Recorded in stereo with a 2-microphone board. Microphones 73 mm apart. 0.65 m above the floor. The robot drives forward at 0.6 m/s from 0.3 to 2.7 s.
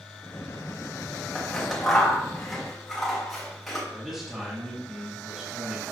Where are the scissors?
5° left (ahead or behind), 0.9 m.